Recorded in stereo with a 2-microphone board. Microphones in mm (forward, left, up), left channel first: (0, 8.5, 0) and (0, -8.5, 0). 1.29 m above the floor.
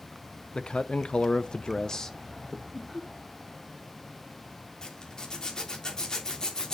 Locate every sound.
0.6 s a man speaking: 65° left (ahead or behind), 1.1 m; by 2.6 s 10° left (ahead or behind), 1.1 m
2.7 s laughter: 25° left (ahead or behind), 4.5 m
4.8 s a zipper: 40° left (ahead or behind), 3 m